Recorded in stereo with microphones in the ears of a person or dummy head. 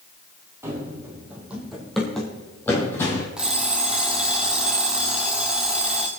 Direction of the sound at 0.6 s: 15° right (ahead or behind).